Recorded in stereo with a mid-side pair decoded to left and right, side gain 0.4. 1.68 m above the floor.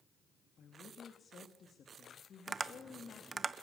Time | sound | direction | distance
0.6 | a woman speaking | 55° left | 3 m
2.5 | tapping | 35° right | 1.0 m